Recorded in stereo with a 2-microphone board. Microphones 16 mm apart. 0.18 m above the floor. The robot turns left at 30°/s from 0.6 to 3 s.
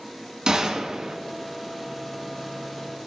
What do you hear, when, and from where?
0.5 s a gunshot: 45° right (ahead or behind), 2 m; by 1.2 s 40° right (ahead or behind), 2 m